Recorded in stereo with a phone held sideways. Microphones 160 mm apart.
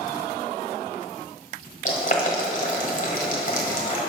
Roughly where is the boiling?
Left.